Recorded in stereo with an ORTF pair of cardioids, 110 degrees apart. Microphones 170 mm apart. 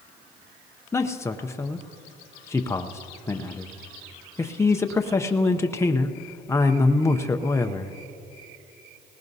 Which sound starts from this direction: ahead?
A man speaking, at 0.9 s.